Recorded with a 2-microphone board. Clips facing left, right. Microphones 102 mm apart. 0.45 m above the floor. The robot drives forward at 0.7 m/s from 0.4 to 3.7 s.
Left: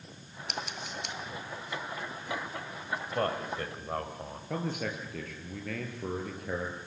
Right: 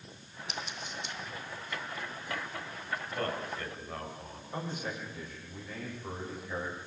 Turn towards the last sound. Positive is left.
turn(degrees=70)  # may be behind; listen again after turning